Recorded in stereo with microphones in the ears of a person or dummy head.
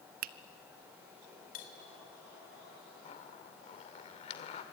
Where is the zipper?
35° left (ahead or behind), 2 m.